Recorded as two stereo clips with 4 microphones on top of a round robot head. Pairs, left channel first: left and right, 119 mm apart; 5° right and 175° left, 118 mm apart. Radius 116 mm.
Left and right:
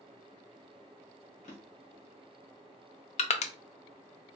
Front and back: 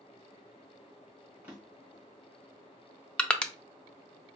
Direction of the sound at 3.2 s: 80° left.